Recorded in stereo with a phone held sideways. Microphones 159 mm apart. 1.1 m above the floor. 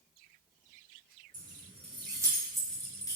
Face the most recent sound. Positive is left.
turn(degrees=25)  # may be behind; listen again after turning